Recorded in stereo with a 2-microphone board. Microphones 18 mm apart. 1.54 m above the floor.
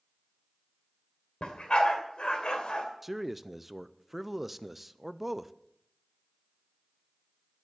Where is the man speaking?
5° right (ahead or behind), 0.6 m.